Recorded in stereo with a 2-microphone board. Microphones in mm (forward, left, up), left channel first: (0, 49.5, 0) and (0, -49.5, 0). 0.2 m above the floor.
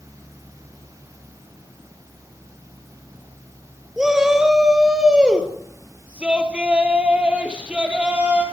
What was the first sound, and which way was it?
A shout, 5° right (ahead or behind).